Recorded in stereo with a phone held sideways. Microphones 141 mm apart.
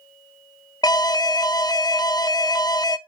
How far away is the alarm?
About 0.7 m.